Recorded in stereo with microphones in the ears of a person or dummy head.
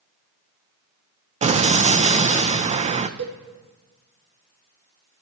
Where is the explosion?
30° right (ahead or behind), 0.5 m.